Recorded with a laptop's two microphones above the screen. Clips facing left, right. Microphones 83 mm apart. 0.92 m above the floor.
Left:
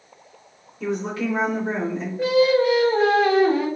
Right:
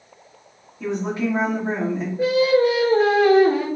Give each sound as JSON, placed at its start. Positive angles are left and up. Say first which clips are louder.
{"t": 0.8, "sound": "a woman speaking", "louder": "right 1 dB", "side_deg": -20, "distance_m": 1.4}
{"t": 2.2, "sound": "singing", "louder": "even", "side_deg": -10, "distance_m": 1.3}